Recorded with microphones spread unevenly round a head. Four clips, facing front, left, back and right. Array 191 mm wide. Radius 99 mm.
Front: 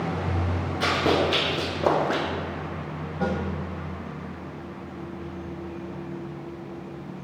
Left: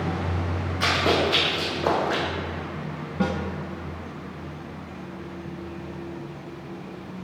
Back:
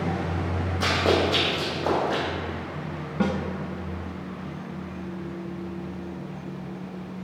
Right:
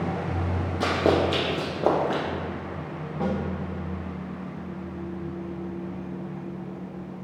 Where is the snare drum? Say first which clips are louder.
Left 2 dB, back 2 dB; 140° left, 1.0 m.